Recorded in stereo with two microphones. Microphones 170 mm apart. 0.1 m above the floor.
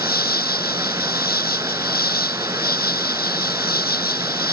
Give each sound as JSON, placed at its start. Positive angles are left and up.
{"t": 0.0, "sound": "an insect", "side_deg": 65}